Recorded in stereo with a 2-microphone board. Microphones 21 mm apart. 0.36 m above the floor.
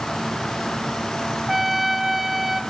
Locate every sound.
1.5 s a trumpet: 10° right (ahead or behind), 0.7 m